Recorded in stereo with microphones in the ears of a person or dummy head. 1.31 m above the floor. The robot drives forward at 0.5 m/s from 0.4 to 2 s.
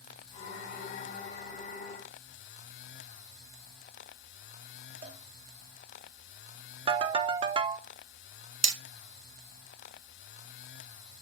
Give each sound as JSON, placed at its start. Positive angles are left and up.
{"t": 5.0, "sound": "a cowbell", "side_deg": -45, "distance_m": 1.4}
{"t": 6.9, "sound": "a ringtone", "side_deg": -25, "distance_m": 0.7}
{"t": 8.6, "sound": "hammering", "side_deg": -20, "distance_m": 1.2}